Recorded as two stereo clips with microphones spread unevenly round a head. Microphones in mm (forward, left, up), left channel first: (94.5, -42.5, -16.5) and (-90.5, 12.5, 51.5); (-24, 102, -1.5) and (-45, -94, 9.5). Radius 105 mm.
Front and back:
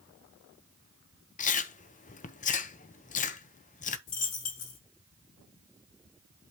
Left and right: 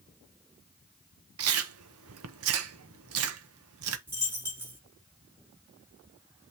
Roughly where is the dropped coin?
Ahead.